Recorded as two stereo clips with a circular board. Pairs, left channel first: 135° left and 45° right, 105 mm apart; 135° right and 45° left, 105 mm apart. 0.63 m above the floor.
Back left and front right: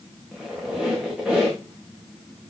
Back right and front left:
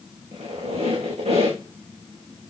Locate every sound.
0.3 s a squeak: 40° left, 6 m